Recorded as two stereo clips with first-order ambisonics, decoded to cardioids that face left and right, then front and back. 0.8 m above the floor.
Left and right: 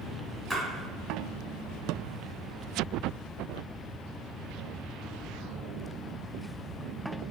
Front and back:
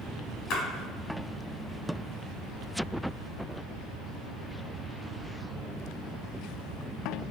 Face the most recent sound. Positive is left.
turn(degrees=-15)